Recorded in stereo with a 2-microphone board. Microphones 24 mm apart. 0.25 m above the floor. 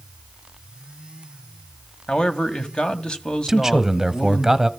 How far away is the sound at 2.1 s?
About 1.8 m.